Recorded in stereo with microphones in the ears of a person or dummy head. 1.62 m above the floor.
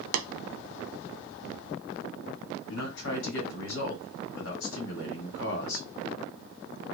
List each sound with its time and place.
0.1 s tapping: 70° right (ahead or behind), 0.8 m
2.7 s a man speaking: 65° left (ahead or behind), 2.5 m